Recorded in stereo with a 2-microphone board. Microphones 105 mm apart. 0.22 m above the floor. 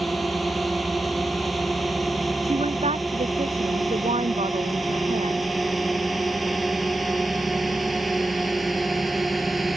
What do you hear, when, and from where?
0.0 s a drone: centre (ahead or behind)
2.5 s a woman speaking: 85° right